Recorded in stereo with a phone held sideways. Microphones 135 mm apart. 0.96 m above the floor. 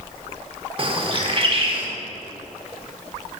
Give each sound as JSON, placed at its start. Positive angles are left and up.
{"t": 0.8, "sound": "a bird", "side_deg": -40, "distance_m": 0.7}